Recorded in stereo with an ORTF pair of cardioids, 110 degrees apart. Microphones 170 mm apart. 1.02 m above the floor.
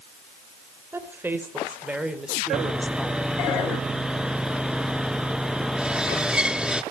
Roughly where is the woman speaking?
Ahead.